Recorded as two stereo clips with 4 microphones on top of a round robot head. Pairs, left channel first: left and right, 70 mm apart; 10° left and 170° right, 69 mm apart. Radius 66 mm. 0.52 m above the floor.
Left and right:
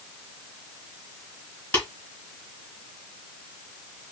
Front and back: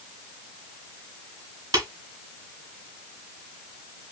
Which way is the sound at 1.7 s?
155° left.